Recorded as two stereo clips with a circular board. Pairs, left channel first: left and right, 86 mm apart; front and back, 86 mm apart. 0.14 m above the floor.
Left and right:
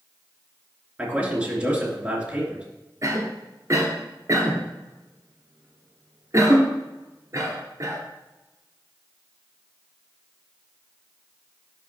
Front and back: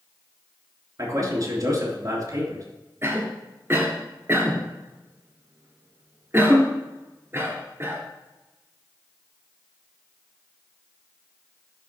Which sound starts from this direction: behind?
A man speaking, at 1.0 s.